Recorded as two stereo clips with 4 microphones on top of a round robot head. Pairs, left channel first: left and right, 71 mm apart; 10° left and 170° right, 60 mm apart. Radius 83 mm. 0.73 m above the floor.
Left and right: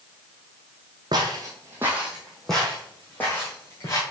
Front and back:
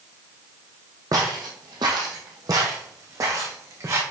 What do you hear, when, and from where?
1.1 s footsteps: 130° right, 1.4 m; by 4.0 s 150° left, 2.5 m